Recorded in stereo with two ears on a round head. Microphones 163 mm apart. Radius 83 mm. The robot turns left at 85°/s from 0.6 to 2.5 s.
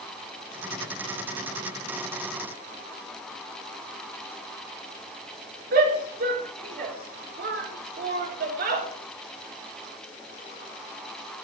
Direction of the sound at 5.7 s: 50° right (ahead or behind).